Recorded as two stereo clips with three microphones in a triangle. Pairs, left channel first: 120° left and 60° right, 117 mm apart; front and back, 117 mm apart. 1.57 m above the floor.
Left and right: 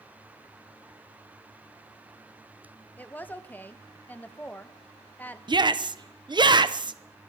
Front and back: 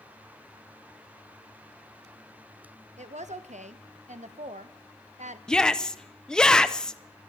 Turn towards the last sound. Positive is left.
turn(degrees=-80)